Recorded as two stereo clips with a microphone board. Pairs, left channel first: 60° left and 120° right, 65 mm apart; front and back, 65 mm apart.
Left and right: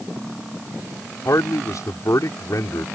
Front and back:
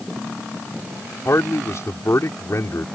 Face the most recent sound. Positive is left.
turn(degrees=35)